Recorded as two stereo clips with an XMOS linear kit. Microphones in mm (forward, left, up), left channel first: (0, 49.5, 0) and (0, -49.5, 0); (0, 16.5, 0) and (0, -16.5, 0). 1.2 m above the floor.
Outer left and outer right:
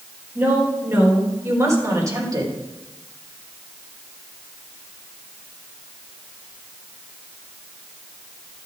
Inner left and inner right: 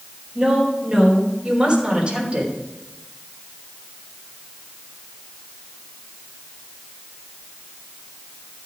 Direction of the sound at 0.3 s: 25° right (ahead or behind).